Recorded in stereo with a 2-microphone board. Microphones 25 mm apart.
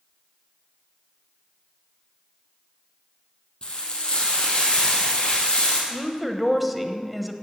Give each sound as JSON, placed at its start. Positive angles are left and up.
{"t": 3.6, "sound": "frying", "side_deg": 40, "distance_m": 3.5}
{"t": 5.9, "sound": "a woman speaking", "side_deg": -5, "distance_m": 1.0}